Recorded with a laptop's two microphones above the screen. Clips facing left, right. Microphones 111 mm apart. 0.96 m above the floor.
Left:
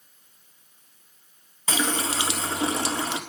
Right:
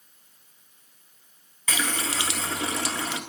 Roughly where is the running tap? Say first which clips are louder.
Left 3 dB; left.